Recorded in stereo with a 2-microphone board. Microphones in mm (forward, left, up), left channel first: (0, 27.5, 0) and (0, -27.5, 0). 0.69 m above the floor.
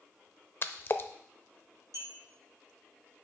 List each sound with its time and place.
0.6 s a splash: 40° left (ahead or behind), 0.5 m
1.9 s a clink: 65° right (ahead or behind), 5 m